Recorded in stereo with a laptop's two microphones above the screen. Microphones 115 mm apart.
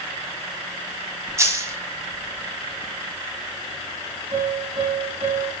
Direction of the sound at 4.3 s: 65° right (ahead or behind).